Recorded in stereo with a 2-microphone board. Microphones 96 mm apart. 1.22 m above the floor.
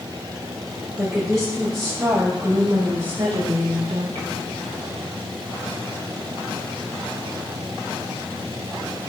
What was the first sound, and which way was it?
A woman speaking, 10° right (ahead or behind).